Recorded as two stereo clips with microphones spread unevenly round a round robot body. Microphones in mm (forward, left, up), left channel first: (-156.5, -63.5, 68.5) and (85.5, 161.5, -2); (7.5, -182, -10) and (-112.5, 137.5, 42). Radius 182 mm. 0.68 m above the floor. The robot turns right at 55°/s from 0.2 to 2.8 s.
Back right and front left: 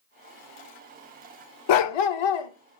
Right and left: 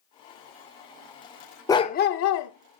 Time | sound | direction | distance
1.7 | a dog barking | 150° right | 0.7 m